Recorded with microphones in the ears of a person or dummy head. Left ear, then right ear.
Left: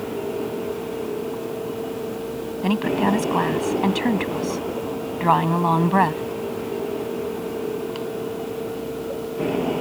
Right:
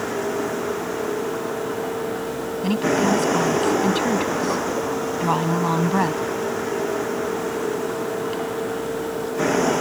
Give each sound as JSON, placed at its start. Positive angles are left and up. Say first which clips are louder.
{"t": 0.0, "sound": "a vehicle", "louder": "right 3 dB", "side_deg": -55}
{"t": 2.6, "sound": "a woman speaking", "louder": "right 1 dB", "side_deg": 20}